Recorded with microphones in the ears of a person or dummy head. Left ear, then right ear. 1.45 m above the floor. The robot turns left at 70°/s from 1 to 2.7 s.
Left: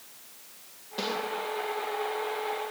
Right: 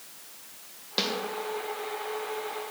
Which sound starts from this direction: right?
A snare drum, at 1.0 s.